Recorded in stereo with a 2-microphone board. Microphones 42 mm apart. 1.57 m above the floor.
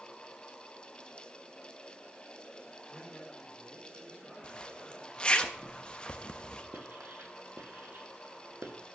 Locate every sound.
2.9 s a man speaking: 15° left (ahead or behind), 6 m
4.4 s a zipper: 25° left (ahead or behind), 1.0 m
6.7 s writing: 55° right (ahead or behind), 1.8 m